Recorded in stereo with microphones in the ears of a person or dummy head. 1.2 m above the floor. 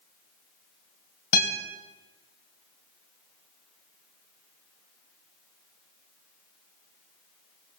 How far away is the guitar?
About 1.9 m.